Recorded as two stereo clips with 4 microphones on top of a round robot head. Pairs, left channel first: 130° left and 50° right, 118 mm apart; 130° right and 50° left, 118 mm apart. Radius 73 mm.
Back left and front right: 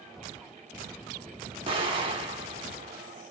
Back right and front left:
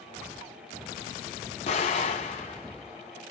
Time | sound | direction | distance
1.7 | an explosion | 95° right | 3.5 m